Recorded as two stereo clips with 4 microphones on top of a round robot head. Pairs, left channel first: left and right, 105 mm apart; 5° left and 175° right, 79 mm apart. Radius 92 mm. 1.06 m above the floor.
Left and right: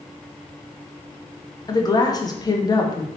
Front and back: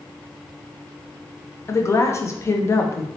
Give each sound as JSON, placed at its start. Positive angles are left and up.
{"t": 1.7, "sound": "a woman speaking", "azimuth_deg": 50, "distance_m": 0.7}